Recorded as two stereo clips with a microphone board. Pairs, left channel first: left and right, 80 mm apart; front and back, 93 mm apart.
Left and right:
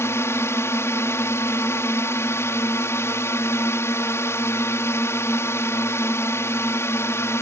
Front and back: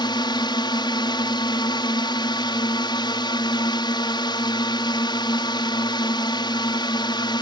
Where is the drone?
35° left.